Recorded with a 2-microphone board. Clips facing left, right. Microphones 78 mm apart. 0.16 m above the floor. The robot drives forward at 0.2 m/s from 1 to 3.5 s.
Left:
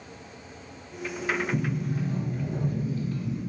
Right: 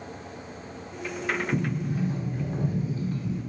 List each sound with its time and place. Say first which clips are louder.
1.5 s a sliding door: right 1 dB; 25° right (ahead or behind), 1.0 m